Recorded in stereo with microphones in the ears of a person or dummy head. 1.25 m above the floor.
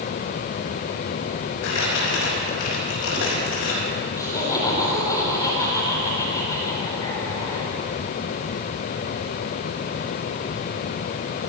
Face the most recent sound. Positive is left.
turn(degrees=20)  # may be behind; listen again after turning